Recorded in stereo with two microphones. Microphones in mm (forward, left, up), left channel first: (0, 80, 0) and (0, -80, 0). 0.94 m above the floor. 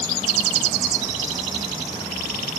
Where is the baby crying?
I don't hear a baby crying.